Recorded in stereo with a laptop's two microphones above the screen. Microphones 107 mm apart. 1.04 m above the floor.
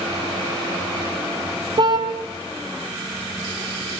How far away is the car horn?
About 2.5 m.